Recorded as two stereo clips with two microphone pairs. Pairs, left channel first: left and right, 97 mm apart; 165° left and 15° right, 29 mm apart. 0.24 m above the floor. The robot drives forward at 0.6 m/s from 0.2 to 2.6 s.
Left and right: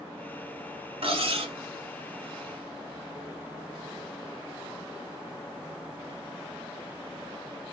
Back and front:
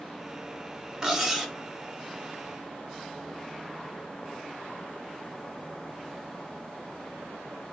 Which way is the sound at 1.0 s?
80° right.